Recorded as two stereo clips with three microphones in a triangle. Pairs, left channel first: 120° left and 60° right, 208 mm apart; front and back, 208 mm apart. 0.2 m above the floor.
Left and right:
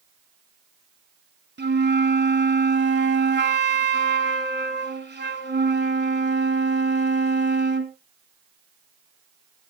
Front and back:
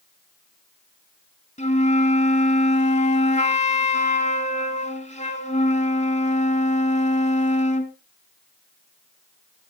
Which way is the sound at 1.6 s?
50° right.